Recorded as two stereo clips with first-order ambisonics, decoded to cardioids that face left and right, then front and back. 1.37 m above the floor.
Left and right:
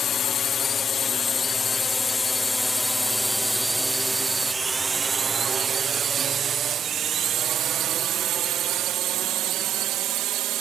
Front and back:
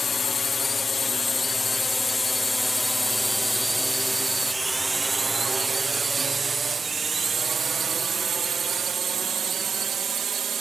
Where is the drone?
55° left; by 10.6 s 120° right.